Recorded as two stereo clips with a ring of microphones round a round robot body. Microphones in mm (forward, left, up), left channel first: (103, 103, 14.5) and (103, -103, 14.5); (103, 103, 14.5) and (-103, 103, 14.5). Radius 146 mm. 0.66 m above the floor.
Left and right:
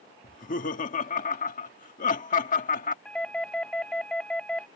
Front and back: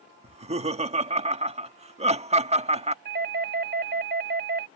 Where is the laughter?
130° left.